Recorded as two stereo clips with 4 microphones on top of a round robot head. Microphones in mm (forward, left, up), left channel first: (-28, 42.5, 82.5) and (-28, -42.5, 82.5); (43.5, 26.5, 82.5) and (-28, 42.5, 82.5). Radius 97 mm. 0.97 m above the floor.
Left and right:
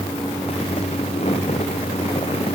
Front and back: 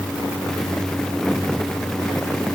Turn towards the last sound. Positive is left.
No sound to turn to.